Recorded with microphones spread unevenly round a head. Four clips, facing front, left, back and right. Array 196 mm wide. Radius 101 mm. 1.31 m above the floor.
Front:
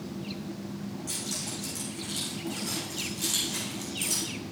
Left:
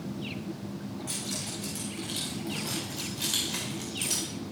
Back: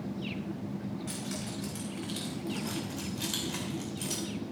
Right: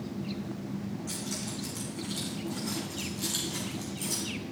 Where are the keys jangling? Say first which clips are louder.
Right 1 dB, back 1 dB; 135° left, 4 m; by 4.3 s 95° left, 3.5 m.